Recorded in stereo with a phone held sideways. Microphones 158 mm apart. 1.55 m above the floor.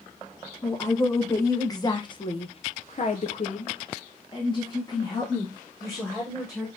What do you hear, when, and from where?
0.6 s a woman speaking: 15° left (ahead or behind), 1.4 m